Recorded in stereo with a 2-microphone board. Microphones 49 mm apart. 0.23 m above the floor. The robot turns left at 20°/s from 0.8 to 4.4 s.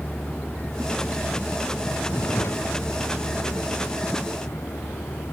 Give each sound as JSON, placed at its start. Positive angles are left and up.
{"t": 0.0, "sound": "a vehicle", "azimuth_deg": 145}